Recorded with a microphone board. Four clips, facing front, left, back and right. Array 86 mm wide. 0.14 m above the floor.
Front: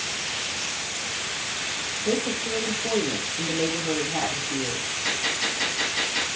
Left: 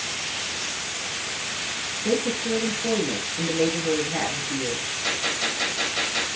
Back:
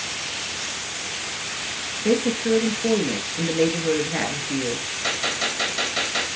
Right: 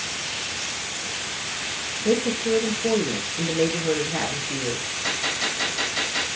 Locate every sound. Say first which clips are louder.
2.0 s a woman speaking: right 3 dB, back 6 dB; straight behind, 3 m
5.0 s a gunshot: even, back 3 dB; straight behind, 3.5 m